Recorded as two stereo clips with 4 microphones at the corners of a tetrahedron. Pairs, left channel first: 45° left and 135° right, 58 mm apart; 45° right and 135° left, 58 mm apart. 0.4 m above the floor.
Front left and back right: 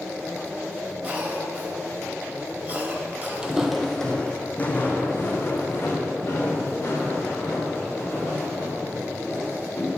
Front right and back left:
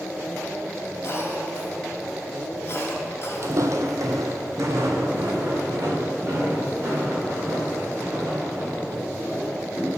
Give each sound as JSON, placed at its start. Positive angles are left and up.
{"t": 1.0, "sound": "a cough", "azimuth_deg": -80, "distance_m": 1.9}
{"t": 3.4, "sound": "footsteps", "azimuth_deg": 155, "distance_m": 0.7}